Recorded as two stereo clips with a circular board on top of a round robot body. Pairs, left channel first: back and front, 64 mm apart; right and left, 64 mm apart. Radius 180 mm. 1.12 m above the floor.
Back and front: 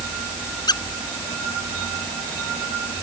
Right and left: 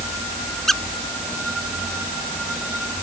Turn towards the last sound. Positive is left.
turn(degrees=-175)